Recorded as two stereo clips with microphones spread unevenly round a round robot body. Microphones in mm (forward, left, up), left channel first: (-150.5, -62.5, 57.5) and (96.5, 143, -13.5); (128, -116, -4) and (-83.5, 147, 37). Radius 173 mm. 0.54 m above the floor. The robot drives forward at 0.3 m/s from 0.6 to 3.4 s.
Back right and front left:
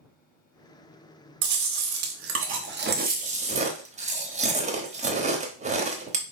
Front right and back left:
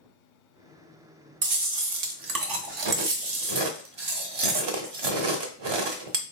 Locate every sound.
1.4 s chewing: 75° left, 1.0 m; by 6.2 s 110° left, 1.0 m